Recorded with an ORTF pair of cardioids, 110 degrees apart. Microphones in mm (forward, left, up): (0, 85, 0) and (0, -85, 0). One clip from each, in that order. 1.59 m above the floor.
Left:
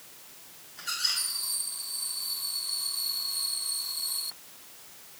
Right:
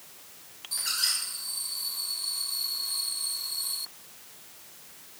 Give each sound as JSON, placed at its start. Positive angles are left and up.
{"t": 0.8, "sound": "a squeak", "azimuth_deg": -70, "distance_m": 5.0}